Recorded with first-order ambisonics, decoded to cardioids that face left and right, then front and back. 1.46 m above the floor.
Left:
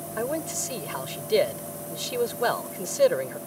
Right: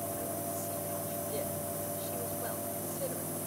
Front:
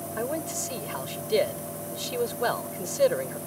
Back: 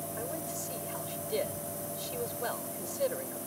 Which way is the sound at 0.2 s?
60° left.